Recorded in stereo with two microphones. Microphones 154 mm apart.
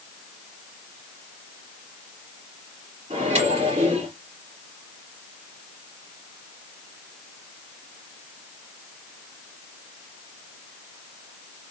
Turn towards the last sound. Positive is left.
turn(degrees=-45)  # may be behind; listen again after turning